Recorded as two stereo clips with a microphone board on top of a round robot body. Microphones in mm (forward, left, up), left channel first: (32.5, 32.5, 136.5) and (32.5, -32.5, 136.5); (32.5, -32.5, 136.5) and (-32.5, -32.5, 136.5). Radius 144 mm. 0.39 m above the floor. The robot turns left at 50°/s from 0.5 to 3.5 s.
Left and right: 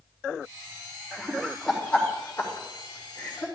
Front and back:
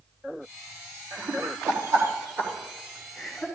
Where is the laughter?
160° right, 1.8 m; by 3.5 s 80° left, 1.8 m.